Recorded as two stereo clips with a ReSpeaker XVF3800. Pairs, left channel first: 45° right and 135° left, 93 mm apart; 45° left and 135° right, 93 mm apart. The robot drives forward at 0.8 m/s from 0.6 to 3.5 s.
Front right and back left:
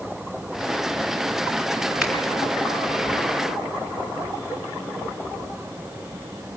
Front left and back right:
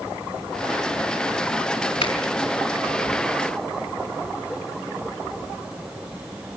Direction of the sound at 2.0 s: 55° left.